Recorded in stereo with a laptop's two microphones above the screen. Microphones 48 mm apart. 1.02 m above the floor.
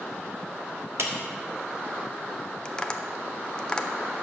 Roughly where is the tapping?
Centre.